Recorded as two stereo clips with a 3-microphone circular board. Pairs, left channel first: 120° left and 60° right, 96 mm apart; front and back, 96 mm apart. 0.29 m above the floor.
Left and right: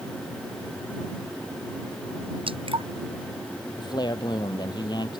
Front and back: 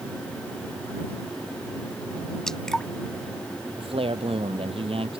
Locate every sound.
2.5 s dripping: 85° right
3.8 s a man speaking: 165° left